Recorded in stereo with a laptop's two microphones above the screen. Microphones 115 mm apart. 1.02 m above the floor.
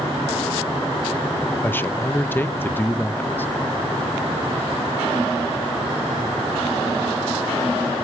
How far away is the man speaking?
About 1.0 m.